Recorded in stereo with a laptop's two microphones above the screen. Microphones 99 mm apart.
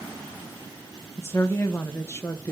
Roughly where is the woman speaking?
Left.